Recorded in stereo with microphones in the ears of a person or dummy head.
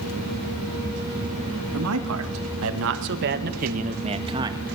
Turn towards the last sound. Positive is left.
turn(degrees=-15)  # may be behind; listen again after turning